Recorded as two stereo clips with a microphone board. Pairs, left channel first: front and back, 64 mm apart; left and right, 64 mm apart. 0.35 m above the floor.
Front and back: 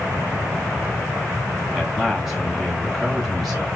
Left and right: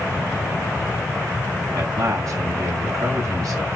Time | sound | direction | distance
1.8 | a man speaking | 95° right | 1.7 m